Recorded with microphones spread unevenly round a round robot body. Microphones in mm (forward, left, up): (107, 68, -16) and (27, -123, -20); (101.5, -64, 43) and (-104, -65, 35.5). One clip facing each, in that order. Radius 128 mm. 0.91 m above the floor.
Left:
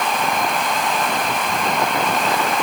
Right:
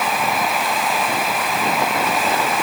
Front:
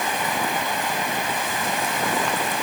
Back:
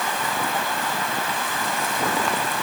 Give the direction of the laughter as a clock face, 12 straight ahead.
I don't hear laughter.